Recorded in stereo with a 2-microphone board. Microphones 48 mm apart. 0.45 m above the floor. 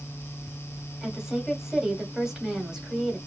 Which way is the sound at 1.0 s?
10° right (ahead or behind).